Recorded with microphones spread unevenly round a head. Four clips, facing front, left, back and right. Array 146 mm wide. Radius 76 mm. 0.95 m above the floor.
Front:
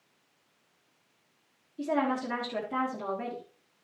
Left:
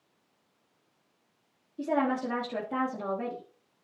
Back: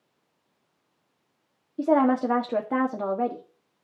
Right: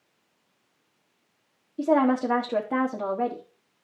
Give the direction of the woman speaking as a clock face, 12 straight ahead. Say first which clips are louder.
Right 7 dB, back 8 dB; 5 o'clock.